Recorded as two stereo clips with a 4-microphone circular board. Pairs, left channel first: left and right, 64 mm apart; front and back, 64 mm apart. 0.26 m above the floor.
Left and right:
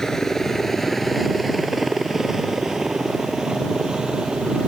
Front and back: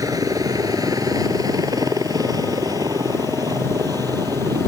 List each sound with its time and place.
0.0 s a helicopter: 170° left; by 4.7 s 165° right